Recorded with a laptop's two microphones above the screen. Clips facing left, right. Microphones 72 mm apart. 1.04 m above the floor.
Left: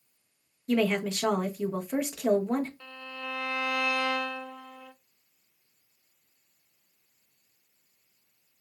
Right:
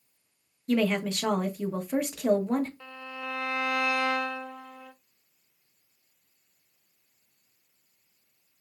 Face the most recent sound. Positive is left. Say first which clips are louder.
# right 1 dB
turn(degrees=-10)  # may be behind; listen again after turning